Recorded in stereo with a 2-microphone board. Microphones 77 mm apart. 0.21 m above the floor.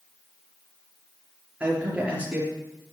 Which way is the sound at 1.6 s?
15° right (ahead or behind).